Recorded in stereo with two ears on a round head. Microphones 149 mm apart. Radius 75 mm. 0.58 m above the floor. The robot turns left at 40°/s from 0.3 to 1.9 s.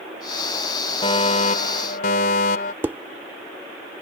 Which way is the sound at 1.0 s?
140° left.